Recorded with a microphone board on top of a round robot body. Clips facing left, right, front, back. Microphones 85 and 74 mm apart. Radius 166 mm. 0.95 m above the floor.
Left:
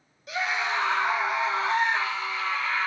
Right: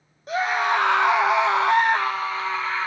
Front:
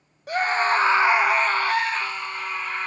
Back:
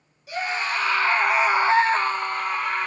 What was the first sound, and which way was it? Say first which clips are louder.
A scream: right 7 dB, front 6 dB; 40° right.